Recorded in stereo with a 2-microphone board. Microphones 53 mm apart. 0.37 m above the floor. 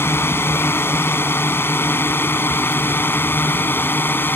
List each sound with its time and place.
0.0 s a drone: 45° left (ahead or behind); by 4.4 s 40° left (ahead or behind)